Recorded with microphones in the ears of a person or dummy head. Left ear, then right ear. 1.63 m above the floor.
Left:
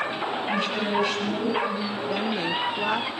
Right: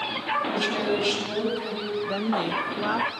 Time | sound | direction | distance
0.5 | a woman speaking | 25° right (ahead or behind) | 10 m
2.1 | a woman speaking | centre (ahead or behind) | 1.0 m